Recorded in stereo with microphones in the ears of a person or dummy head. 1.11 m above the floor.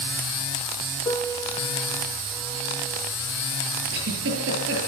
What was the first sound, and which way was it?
A piano, 25° left (ahead or behind).